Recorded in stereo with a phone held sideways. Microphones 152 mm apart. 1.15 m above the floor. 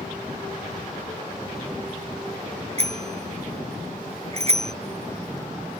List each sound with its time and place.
2.8 s a bicycle bell: 45° right (ahead or behind)